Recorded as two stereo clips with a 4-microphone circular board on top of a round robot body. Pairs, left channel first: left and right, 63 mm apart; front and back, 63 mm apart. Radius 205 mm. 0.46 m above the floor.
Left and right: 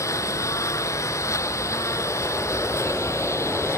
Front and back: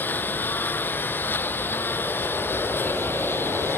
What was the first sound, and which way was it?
A lawn mower, 55° left.